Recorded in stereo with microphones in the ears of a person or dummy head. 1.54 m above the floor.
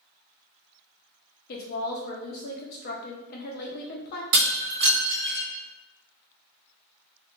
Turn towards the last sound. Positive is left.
turn(degrees=-50)  # may be behind; listen again after turning